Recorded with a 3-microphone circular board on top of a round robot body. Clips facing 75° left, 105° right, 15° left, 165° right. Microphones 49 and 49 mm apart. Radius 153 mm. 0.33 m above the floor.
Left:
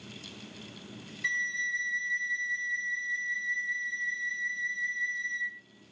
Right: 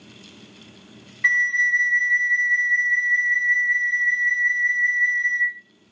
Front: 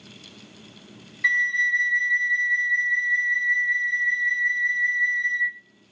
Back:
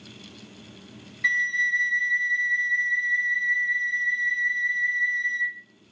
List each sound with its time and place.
1.2 s a flute: 70° right, 0.7 m